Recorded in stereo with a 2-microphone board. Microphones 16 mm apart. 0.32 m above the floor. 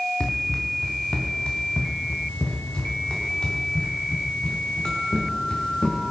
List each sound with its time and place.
0.2 s running footsteps: 55° left (ahead or behind), 3 m; by 6.1 s 65° left (ahead or behind), 6 m